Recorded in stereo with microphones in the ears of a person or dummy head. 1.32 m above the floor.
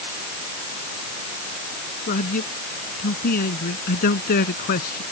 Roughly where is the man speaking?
Left.